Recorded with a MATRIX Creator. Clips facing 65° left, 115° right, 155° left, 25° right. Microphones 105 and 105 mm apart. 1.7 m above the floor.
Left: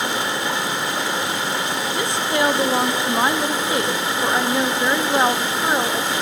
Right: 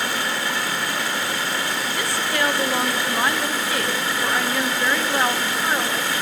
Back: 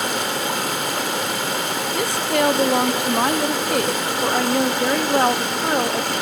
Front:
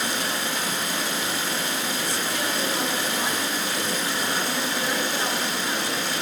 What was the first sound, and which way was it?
Running water, 135° left.